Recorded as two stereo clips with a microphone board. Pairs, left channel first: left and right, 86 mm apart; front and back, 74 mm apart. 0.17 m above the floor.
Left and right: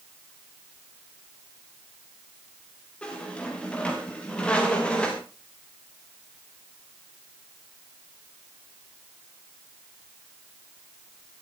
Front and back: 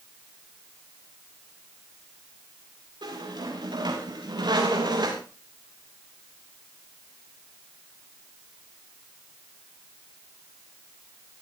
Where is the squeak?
165° left, 5 m.